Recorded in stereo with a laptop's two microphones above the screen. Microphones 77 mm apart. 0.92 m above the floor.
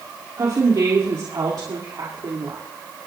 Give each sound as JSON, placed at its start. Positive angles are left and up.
{"t": 0.4, "sound": "a woman speaking", "side_deg": -55, "distance_m": 2.0}